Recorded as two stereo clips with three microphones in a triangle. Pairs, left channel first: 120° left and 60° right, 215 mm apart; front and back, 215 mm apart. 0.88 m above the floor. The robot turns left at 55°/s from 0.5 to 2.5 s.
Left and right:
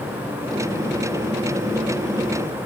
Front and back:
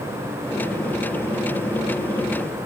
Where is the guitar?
No guitar in this recording.